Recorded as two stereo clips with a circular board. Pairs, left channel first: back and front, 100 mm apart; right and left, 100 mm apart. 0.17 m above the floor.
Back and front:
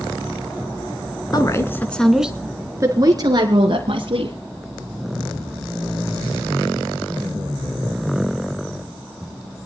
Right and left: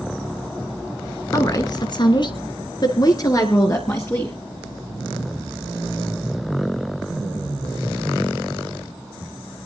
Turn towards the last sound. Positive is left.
turn(degrees=-30)